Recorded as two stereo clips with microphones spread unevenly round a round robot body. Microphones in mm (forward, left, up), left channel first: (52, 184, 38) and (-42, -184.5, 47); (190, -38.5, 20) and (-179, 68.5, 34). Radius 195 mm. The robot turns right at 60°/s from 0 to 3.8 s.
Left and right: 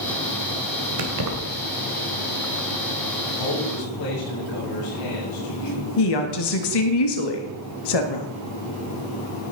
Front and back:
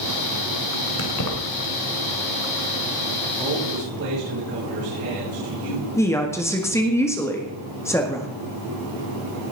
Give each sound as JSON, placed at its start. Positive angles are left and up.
{"t": 1.0, "sound": "keys jangling", "azimuth_deg": -75, "distance_m": 2.5}
{"t": 3.4, "sound": "a man speaking", "azimuth_deg": 85, "distance_m": 7.5}
{"t": 6.0, "sound": "a woman speaking", "azimuth_deg": 65, "distance_m": 1.8}